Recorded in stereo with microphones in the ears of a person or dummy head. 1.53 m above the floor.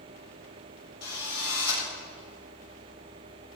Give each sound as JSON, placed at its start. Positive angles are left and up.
{"t": 1.0, "sound": "a drill", "side_deg": 85, "distance_m": 7.5}